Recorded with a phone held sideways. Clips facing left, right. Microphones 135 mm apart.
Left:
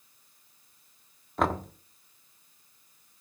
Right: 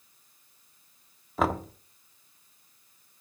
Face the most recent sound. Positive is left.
turn(degrees=0)  # may be behind; listen again after turning